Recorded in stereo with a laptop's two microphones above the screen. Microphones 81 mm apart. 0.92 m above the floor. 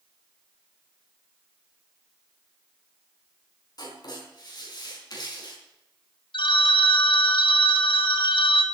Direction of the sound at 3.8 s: 55° left (ahead or behind).